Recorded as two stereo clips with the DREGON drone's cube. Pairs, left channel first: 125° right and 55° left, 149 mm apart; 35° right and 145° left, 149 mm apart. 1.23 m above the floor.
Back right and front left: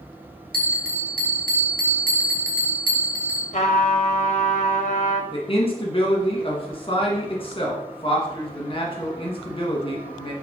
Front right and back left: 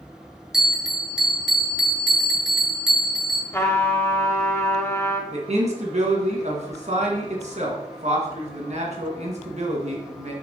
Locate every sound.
0.5 s a bell: 60° left, 1.3 m
3.5 s a trumpet: 100° right, 1.1 m
5.3 s a man speaking: 175° right, 1.6 m